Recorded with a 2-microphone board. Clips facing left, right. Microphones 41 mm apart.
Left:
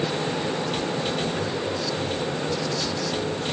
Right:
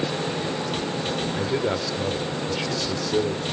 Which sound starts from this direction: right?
A man speaking, at 1.3 s.